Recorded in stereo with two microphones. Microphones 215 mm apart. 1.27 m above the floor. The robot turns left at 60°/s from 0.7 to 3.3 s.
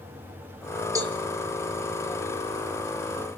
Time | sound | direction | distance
0.9 | a cowbell | 15° right (ahead or behind) | 2 m